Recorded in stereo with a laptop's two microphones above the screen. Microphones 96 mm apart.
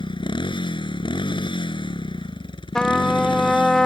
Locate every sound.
0.0 s a motorcycle: 55° left (ahead or behind)
2.8 s a trumpet: 5° left (ahead or behind)